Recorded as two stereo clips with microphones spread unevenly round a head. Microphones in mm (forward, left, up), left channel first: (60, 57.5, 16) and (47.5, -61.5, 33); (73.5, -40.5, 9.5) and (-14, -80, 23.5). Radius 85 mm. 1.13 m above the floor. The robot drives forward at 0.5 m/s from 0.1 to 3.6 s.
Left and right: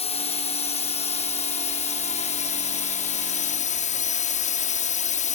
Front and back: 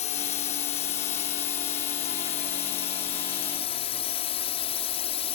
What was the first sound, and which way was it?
A drone, 45° left.